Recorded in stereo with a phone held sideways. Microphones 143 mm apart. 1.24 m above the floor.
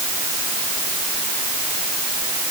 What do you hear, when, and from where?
Only background noise.